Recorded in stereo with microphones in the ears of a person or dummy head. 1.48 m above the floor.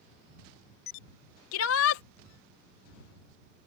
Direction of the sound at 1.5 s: 85° left.